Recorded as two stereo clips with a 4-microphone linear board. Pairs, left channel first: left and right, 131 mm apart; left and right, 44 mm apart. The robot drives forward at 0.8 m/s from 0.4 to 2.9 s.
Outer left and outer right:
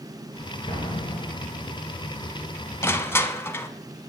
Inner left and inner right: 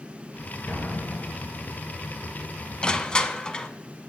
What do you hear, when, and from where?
0.7 s an explosion: 40° left (ahead or behind), 2.5 m; by 1.8 s 60° left (ahead or behind), 1.7 m
2.8 s crushing: 20° left (ahead or behind), 0.6 m